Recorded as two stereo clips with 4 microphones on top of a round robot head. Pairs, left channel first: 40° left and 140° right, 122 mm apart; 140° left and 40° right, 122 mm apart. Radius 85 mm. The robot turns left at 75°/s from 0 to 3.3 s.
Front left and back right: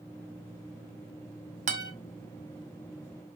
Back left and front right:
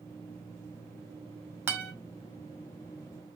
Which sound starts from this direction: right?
A guitar, at 1.7 s.